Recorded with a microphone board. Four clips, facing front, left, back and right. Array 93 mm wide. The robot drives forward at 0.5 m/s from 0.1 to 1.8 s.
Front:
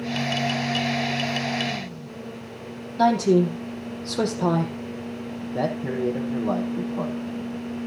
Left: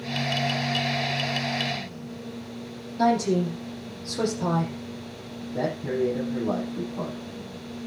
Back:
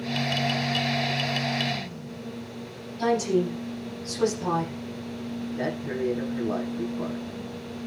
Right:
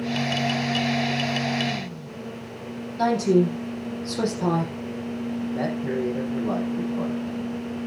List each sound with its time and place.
3.0 s a woman speaking: straight ahead, 6 m
5.4 s a man speaking: straight ahead, 7 m